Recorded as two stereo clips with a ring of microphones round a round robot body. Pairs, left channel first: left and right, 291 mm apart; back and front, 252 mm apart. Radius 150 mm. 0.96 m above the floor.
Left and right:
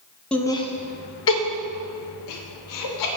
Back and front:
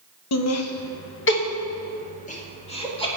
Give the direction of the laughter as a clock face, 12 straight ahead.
6 o'clock.